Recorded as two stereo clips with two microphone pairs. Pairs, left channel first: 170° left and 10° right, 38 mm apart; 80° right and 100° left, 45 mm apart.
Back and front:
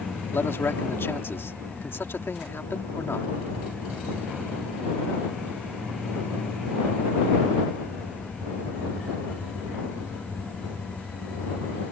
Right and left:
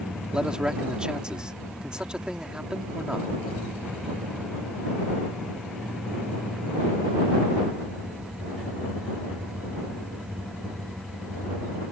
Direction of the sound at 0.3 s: 170° left.